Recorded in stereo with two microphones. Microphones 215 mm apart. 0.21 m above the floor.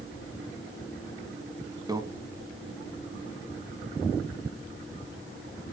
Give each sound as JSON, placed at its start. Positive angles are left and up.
{"t": 1.9, "sound": "a microwave", "side_deg": -15, "distance_m": 1.4}